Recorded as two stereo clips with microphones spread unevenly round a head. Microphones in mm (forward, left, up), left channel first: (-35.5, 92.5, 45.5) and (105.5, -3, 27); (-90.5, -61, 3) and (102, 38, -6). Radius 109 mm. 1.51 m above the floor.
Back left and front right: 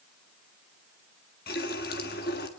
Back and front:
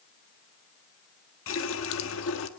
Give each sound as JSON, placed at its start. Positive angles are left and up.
{"t": 1.5, "sound": "a running tap", "azimuth_deg": -170, "distance_m": 1.7}